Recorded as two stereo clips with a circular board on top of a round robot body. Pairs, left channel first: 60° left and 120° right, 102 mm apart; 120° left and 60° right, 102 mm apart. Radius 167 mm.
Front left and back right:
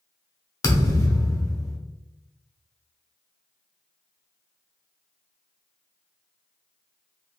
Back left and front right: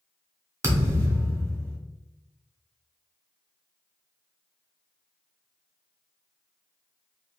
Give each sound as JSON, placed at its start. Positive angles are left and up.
{"t": 0.6, "sound": "a thud", "azimuth_deg": 5, "distance_m": 0.7}